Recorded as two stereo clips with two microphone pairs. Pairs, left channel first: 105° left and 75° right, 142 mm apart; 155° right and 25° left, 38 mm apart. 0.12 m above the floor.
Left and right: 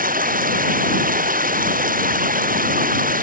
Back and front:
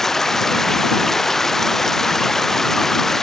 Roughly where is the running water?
Right.